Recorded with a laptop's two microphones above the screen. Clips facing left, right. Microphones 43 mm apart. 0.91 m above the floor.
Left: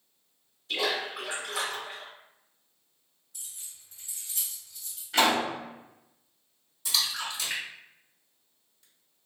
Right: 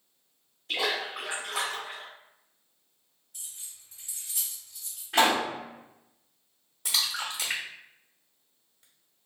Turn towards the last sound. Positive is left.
turn(degrees=-55)  # may be behind; listen again after turning